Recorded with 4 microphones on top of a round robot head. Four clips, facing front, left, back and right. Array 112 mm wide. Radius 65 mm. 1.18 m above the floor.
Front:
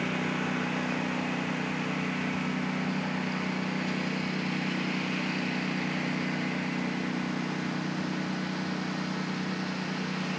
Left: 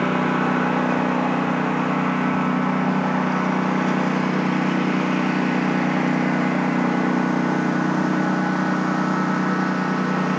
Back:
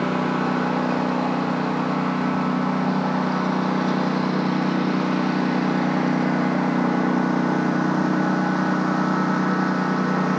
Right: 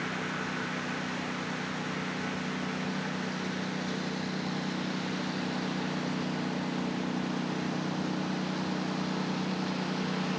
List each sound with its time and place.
0.0 s a lawn mower: 125° left; by 10.4 s 140° left